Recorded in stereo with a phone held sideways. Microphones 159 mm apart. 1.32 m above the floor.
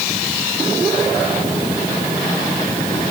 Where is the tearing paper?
I don't hear tearing paper.